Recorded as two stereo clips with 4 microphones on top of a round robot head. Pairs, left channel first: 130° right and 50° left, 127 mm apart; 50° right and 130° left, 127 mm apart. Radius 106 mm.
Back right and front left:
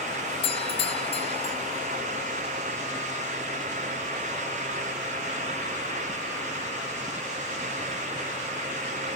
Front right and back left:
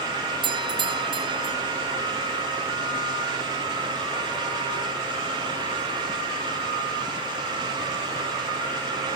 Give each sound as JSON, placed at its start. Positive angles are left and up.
{"t": 0.4, "sound": "a doorbell", "azimuth_deg": -175}